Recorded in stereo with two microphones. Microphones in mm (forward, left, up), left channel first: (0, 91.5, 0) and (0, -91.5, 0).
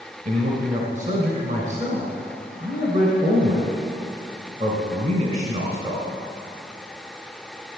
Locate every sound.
0.2 s a man speaking: 45° right (ahead or behind), 2 m